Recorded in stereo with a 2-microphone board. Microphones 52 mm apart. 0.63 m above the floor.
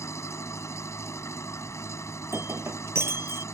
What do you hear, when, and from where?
0.0 s an engine running: 65° left (ahead or behind)
2.2 s breaking glass: 55° right (ahead or behind)